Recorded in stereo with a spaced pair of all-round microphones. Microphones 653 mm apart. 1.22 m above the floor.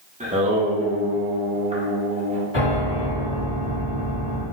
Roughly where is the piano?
Left.